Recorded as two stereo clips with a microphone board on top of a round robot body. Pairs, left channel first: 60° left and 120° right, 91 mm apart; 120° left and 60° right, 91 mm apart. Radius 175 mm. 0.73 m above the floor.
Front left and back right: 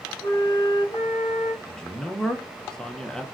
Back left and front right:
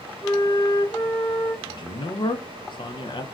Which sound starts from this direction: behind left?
A man speaking, at 1.7 s.